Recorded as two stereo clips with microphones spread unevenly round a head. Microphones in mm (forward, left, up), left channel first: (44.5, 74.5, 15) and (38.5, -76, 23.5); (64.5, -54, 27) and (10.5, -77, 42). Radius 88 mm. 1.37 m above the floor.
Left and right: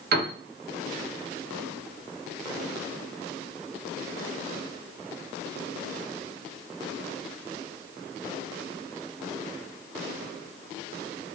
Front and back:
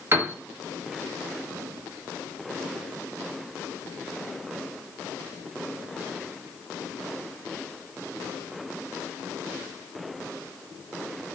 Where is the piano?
100° right, 0.7 m.